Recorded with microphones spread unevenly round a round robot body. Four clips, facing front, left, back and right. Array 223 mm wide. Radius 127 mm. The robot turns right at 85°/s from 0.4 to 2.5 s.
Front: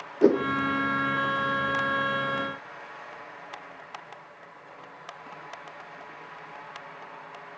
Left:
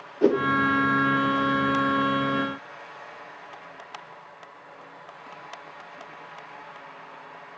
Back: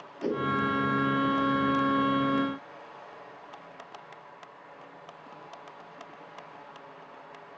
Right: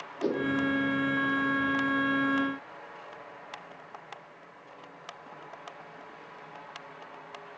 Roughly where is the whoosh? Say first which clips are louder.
Left 9 dB, front 10 dB; ahead left.